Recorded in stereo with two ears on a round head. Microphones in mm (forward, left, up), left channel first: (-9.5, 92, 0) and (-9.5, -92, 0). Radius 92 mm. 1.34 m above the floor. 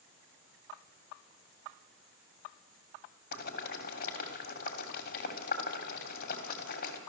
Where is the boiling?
45° left (ahead or behind), 3 m.